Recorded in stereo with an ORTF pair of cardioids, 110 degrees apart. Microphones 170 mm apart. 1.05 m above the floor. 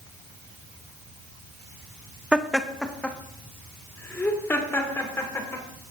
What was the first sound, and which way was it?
Laughter, 5° right.